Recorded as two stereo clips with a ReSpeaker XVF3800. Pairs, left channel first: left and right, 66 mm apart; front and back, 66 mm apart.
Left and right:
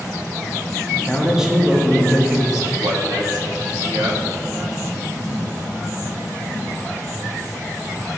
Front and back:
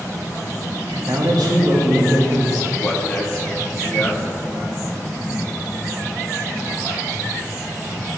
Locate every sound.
1.1 s a man speaking: 170° right, 1.6 m
2.8 s a man speaking: 70° right, 1.7 m